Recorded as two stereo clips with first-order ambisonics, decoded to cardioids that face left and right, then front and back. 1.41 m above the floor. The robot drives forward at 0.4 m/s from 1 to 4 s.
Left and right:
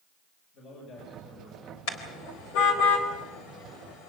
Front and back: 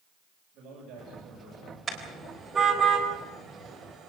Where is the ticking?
No ticking in this recording.